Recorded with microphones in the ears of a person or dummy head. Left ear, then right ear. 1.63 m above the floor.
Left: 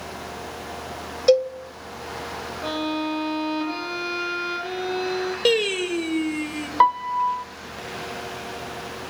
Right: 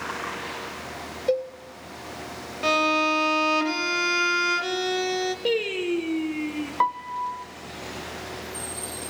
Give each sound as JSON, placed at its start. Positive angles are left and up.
{"t": 1.3, "sound": "a cowbell", "side_deg": 55, "distance_m": 1.3}
{"t": 2.6, "sound": "a violin", "side_deg": -70, "distance_m": 3.0}
{"t": 5.5, "sound": "singing", "side_deg": 65, "distance_m": 2.5}
{"t": 6.8, "sound": "a piano", "side_deg": 25, "distance_m": 0.6}